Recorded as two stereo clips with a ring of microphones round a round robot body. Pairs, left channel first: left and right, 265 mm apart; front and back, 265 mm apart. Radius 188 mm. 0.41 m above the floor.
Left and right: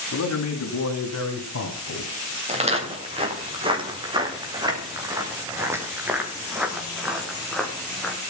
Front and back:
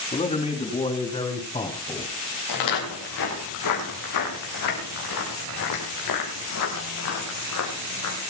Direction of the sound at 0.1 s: 60° left.